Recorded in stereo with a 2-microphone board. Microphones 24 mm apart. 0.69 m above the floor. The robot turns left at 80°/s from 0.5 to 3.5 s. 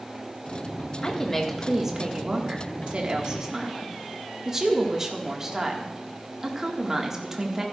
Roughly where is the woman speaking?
Ahead left.